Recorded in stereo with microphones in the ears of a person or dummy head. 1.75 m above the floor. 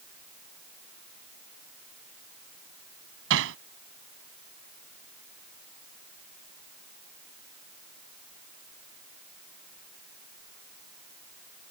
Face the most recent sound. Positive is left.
turn(degrees=-75)  # may be behind; listen again after turning